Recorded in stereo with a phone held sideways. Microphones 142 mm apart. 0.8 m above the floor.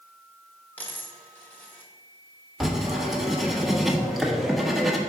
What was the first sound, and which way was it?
A dropped coin, 10° left (ahead or behind).